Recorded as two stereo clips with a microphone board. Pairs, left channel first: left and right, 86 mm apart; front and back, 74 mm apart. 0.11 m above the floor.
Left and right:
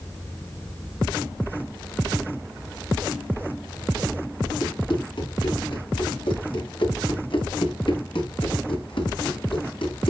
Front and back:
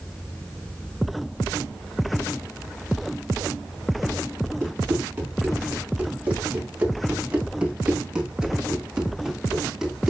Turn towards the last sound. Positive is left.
turn(degrees=95)